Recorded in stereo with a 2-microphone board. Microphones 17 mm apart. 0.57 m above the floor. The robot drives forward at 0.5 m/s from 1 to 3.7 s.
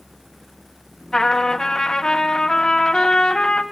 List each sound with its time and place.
1.1 s a trumpet: 40° left (ahead or behind), 3.5 m; by 3.6 s 60° left (ahead or behind), 2.5 m